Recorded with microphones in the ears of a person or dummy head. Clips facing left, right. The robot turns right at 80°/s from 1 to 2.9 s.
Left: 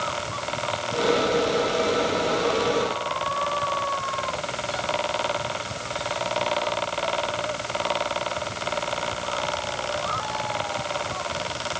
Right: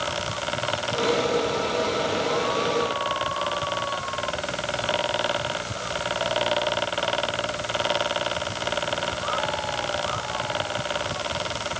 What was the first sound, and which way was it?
Only background noise.